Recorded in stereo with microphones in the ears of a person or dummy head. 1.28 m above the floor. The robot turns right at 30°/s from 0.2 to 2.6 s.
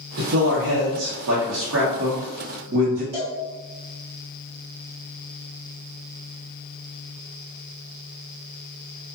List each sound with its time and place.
0.2 s a man speaking: 130° right, 0.7 m; by 3.0 s 55° right, 0.7 m
3.1 s a cowbell: 50° right (ahead or behind), 1.9 m